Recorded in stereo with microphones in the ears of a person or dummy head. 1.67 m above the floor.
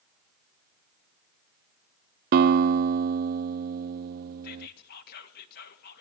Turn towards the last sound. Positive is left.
turn(degrees=45)  # may be behind; listen again after turning